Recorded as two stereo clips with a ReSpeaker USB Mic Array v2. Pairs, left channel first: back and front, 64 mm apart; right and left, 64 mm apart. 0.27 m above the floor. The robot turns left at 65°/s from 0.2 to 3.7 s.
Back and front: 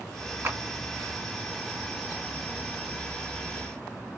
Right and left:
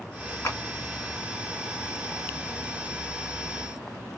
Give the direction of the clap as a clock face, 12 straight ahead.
2 o'clock.